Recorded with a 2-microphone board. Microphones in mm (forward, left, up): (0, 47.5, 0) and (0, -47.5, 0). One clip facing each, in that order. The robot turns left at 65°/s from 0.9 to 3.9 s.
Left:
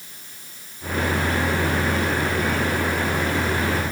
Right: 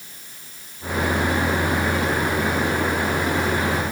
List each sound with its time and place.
Only background noise.